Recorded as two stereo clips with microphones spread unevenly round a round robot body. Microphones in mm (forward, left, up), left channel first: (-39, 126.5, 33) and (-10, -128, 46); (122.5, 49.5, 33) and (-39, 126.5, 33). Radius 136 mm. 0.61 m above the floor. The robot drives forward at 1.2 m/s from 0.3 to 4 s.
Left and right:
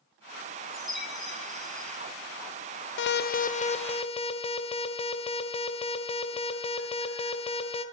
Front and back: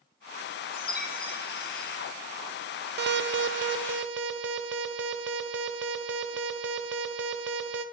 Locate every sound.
0.7 s a chime: 5° left, 4.5 m; by 2.0 s 10° left, 3.5 m
3.0 s an alarm: 135° left, 0.7 m; by 7.8 s 165° left, 1.8 m